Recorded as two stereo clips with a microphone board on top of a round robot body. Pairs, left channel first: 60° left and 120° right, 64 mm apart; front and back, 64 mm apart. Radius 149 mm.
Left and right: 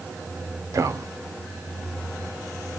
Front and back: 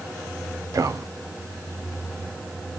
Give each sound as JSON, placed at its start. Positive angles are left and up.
{"t": 0.7, "sound": "a man speaking", "azimuth_deg": -150, "distance_m": 1.0}